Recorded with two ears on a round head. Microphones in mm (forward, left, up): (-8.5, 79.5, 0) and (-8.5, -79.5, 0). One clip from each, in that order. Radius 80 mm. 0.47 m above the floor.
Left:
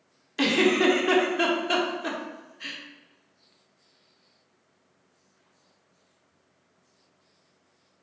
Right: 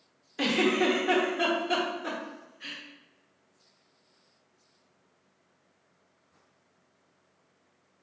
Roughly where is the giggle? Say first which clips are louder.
Left 4 dB; left.